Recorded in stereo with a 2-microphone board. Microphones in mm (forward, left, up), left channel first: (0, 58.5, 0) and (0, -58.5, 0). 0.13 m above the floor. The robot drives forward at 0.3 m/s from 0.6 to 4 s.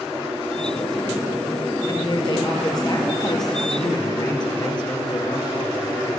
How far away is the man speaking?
About 2.5 m.